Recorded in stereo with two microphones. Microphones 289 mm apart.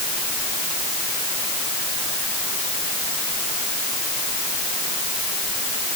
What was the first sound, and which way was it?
Only background noise.